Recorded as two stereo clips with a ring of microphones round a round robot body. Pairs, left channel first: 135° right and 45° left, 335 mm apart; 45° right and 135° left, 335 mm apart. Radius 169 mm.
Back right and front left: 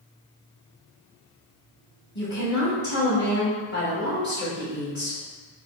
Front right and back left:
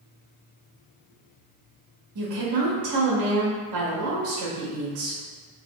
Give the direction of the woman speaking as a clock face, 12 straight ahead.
6 o'clock.